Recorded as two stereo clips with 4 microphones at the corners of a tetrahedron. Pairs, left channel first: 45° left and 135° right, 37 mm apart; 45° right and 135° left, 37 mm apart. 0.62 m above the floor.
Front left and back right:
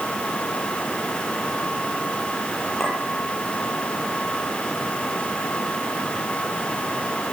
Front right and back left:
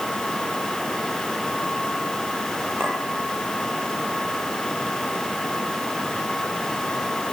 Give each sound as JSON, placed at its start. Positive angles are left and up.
{"t": 2.8, "sound": "a clink", "azimuth_deg": 130, "distance_m": 9.5}